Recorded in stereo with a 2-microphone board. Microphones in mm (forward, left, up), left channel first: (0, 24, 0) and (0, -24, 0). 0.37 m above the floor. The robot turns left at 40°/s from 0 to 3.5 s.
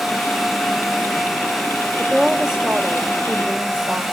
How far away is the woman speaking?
About 1.1 m.